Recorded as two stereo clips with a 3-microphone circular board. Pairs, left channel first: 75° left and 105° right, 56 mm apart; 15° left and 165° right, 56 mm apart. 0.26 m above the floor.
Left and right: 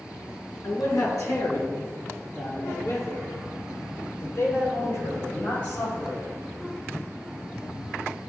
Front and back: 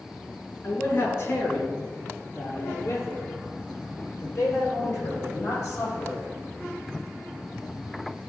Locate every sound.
0.6 s a man speaking: 65° left, 3 m; by 6.2 s 45° left, 10 m